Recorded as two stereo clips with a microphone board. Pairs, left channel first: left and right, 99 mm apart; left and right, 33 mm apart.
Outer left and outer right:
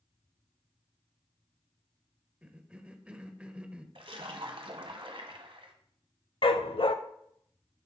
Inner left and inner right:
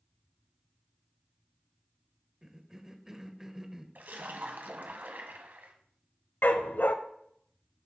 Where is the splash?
65° right (ahead or behind), 1.2 m.